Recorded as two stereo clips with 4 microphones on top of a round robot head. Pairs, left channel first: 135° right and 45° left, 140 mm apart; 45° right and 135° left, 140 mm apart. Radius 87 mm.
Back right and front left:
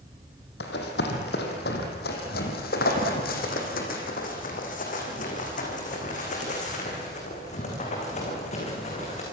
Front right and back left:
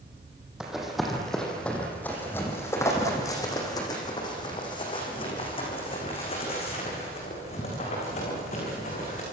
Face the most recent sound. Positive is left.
turn(degrees=-90)